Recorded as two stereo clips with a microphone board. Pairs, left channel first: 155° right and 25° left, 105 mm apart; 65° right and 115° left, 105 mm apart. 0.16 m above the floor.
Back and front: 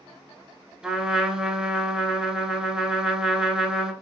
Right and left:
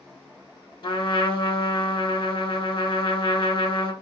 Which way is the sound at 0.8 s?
60° right.